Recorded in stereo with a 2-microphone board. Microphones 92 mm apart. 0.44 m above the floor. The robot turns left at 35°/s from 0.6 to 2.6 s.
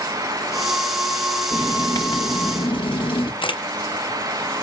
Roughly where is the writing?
Behind left.